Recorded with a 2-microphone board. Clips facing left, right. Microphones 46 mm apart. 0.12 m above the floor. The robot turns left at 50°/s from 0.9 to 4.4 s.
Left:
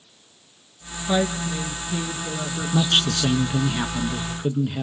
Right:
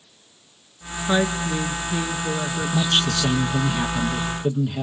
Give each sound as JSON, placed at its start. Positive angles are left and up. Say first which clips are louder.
{"t": 1.1, "sound": "a woman speaking", "louder": "right 1 dB", "azimuth_deg": -75, "distance_m": 1.2}
{"t": 2.7, "sound": "a man speaking", "louder": "left 2 dB", "side_deg": 20, "distance_m": 1.2}